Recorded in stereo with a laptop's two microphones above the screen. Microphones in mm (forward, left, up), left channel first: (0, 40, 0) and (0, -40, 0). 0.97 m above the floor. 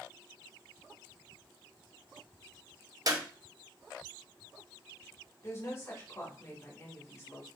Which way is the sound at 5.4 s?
35° left (ahead or behind).